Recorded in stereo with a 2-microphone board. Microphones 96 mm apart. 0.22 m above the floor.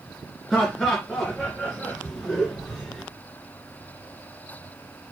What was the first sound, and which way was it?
Laughter, centre (ahead or behind).